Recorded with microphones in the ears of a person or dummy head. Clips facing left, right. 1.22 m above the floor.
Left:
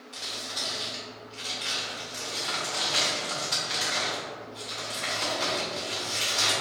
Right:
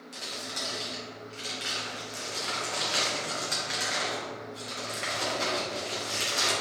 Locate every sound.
0.1 s crumpling: 25° right (ahead or behind), 1.3 m